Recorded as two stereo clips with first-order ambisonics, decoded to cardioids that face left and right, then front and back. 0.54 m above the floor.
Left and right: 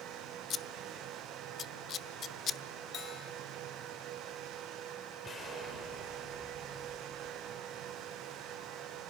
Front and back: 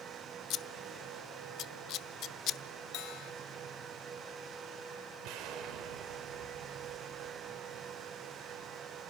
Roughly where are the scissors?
Ahead left.